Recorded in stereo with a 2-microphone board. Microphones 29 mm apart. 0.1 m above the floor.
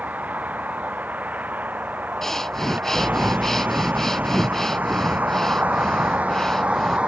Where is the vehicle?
65° right (ahead or behind); by 7.1 s 40° right (ahead or behind).